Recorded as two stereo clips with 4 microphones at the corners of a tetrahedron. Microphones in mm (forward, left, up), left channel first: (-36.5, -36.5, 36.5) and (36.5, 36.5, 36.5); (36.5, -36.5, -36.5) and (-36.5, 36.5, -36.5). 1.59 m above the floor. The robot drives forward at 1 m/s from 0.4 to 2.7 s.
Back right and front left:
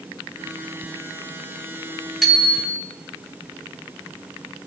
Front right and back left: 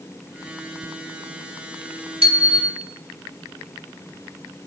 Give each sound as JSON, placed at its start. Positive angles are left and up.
{"t": 2.2, "sound": "a bicycle bell", "azimuth_deg": 135, "distance_m": 5.5}